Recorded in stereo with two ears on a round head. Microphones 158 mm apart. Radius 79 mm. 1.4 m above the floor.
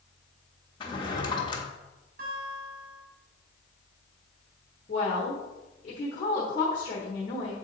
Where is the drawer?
25° left (ahead or behind), 1.0 m.